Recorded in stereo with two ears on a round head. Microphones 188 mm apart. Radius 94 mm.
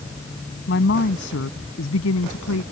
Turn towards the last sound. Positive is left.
turn(degrees=75)  # may be behind; listen again after turning